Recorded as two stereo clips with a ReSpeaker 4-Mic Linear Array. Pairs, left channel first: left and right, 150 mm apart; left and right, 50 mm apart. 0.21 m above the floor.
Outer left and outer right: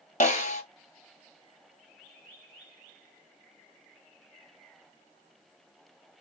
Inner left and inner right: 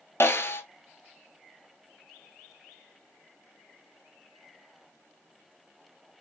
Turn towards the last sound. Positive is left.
turn(degrees=50)  # may be behind; listen again after turning